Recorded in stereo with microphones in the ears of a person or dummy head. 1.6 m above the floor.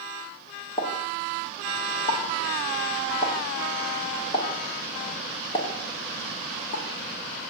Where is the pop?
30° left (ahead or behind), 2.5 m.